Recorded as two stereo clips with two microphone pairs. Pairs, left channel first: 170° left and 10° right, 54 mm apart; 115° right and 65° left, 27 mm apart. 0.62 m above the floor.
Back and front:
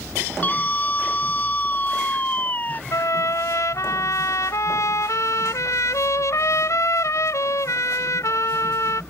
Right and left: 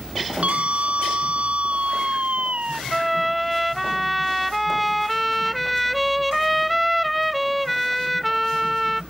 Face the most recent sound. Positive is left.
turn(degrees=160)